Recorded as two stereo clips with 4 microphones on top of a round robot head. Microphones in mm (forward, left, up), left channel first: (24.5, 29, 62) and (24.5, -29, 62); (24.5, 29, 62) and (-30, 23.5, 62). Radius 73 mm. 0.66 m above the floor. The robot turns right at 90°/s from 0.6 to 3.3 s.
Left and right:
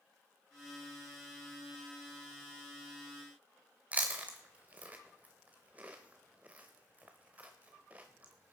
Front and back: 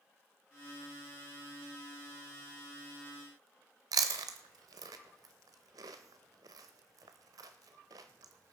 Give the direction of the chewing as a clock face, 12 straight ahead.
5 o'clock.